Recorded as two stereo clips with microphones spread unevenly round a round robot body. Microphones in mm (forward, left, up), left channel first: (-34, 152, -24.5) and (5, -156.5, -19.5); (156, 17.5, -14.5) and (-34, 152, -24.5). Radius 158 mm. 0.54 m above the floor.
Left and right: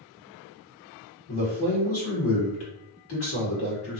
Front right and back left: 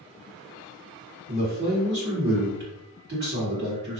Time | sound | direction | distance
1.3 | a man speaking | 130° left | 1.7 m